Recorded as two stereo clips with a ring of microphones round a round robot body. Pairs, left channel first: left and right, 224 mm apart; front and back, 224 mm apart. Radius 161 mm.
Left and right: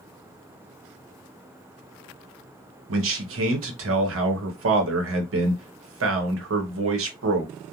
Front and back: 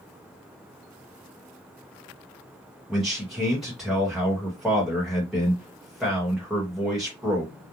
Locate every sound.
2.9 s a man speaking: 90° right, 1.0 m